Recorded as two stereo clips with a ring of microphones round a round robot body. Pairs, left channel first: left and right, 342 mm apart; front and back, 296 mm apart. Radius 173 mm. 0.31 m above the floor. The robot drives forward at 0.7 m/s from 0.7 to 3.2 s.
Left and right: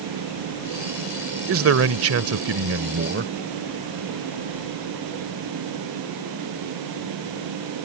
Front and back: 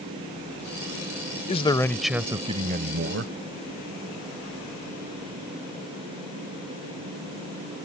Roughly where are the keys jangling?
No keys jangling in this recording.